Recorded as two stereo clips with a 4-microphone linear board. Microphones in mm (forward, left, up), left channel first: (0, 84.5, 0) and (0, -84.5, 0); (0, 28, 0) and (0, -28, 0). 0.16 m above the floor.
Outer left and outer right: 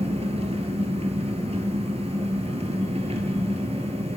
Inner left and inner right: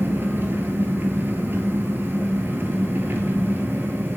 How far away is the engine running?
About 1.0 m.